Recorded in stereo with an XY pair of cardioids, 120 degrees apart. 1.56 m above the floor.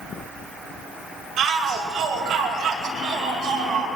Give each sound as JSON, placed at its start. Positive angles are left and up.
{"t": 1.4, "sound": "a shout", "azimuth_deg": -60, "distance_m": 8.5}